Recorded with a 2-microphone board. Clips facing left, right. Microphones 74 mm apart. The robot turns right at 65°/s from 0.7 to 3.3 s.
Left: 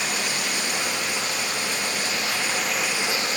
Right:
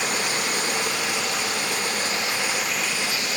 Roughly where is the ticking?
I don't hear ticking.